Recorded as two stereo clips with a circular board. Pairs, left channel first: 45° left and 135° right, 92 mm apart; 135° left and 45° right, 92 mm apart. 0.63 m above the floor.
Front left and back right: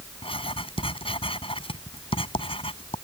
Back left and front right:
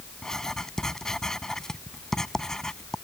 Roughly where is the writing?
Ahead left.